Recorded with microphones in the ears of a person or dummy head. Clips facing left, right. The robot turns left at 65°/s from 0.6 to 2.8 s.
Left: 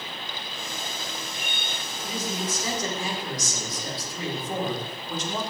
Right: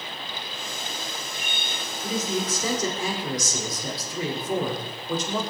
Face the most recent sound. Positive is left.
turn(degrees=-85)